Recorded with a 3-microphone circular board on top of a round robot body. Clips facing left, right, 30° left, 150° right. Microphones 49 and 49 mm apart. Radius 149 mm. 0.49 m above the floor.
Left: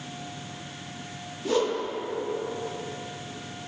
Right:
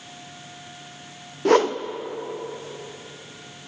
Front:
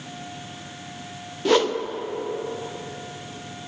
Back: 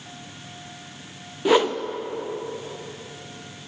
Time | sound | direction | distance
1.4 | a whoosh | 75° right | 0.6 m